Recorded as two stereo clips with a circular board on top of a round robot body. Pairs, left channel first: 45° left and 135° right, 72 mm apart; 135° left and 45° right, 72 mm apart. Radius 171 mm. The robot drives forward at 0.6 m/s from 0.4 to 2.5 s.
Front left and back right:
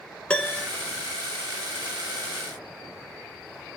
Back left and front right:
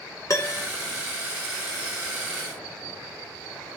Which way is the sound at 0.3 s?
115° left.